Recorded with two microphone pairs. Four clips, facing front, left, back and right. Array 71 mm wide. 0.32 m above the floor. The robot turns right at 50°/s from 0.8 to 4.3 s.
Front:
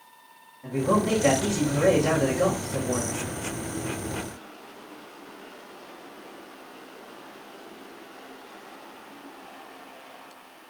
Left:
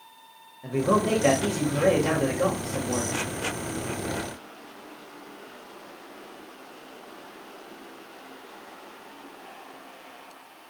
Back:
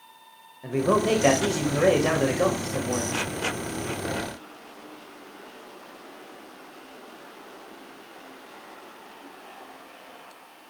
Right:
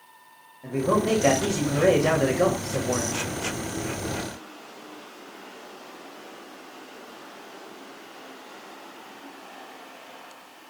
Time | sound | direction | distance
0.6 | a man speaking | 175° left | 1.2 m